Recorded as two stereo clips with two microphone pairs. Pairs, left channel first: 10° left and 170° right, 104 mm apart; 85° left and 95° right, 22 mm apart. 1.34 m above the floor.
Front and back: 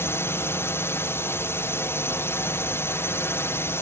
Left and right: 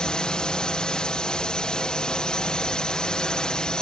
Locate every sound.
0.0 s a drone: 60° left